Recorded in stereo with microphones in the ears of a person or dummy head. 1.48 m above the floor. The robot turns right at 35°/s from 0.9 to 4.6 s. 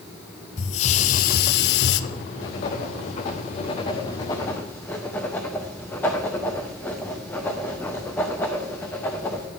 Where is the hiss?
40° left, 0.7 m; by 2.0 s 80° left, 0.7 m.